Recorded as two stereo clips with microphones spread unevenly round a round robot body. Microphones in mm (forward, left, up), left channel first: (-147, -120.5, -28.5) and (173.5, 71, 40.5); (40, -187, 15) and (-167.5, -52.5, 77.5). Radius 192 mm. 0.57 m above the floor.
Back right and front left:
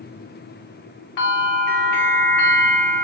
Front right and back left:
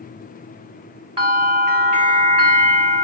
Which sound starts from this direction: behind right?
A bell, at 1.2 s.